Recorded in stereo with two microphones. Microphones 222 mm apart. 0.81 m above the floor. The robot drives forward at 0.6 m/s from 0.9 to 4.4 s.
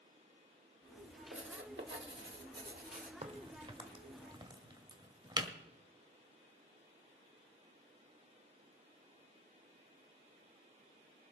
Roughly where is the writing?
Right.